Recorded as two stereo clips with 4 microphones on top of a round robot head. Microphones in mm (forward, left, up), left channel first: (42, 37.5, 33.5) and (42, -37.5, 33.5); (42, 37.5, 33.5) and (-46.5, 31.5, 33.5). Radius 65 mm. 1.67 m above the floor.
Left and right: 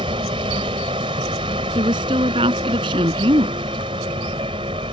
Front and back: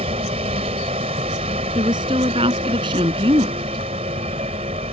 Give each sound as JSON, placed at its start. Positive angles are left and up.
{"t": 0.0, "sound": "a vehicle", "azimuth_deg": -135}
{"t": 1.8, "sound": "a woman speaking", "azimuth_deg": -130}